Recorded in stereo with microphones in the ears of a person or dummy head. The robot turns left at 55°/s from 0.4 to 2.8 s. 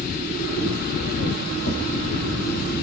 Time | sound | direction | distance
1.7 | tapping | 55° left (ahead or behind) | 4 m